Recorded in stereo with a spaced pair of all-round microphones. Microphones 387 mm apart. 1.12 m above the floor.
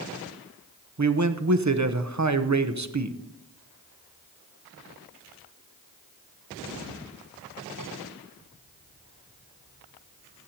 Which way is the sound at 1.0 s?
45° right (ahead or behind).